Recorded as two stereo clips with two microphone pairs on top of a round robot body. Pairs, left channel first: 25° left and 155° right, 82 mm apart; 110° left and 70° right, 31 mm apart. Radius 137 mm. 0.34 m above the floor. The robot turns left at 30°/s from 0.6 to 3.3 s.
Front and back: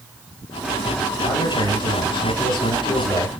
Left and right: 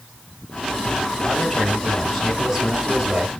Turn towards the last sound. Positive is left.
turn(degrees=-10)